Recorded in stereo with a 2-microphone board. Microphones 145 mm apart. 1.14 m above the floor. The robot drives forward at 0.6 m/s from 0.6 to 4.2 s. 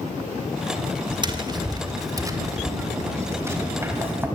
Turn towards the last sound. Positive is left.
turn(degrees=-15)  # may be behind; listen again after turning